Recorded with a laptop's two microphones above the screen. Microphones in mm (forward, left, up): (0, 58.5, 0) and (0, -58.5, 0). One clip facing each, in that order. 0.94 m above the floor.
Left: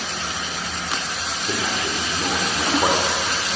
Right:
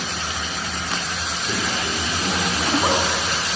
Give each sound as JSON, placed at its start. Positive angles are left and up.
{"t": 1.5, "sound": "a man speaking", "side_deg": 25, "distance_m": 2.0}